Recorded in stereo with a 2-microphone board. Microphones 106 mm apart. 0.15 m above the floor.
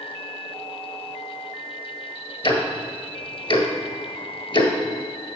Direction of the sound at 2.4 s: 50° left (ahead or behind).